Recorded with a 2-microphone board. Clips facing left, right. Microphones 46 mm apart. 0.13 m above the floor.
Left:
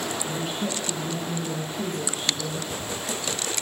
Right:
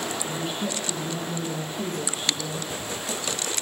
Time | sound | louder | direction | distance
0.2 | a woman speaking | even | 15° left (ahead or behind) | 1.6 m